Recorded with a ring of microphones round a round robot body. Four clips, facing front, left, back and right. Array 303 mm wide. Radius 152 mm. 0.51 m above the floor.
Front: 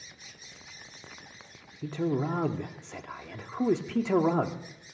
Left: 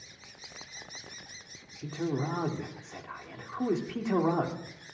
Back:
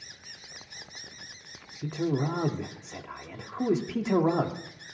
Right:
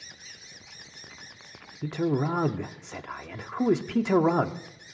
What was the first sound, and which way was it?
A man speaking, 85° right.